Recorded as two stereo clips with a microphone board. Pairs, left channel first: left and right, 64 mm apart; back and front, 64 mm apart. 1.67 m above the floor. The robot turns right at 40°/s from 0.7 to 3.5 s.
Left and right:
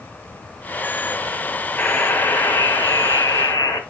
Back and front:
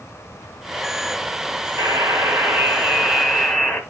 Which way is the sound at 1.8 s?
30° left.